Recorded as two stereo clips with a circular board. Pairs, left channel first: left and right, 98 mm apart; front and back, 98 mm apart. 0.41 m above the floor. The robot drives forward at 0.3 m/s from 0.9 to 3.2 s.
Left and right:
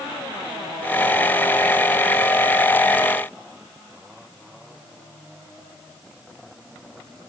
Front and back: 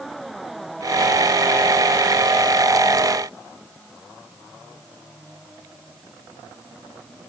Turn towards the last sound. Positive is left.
No sound to turn to.